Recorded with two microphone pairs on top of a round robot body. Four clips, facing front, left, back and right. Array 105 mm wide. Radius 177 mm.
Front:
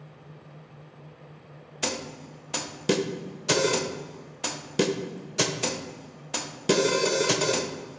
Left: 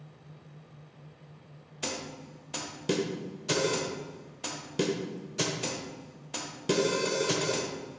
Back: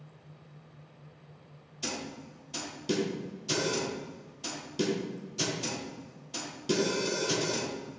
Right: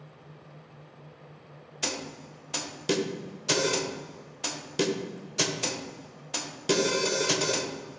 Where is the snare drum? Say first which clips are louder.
Right 1 dB, front 5 dB; 10° right, 0.9 m.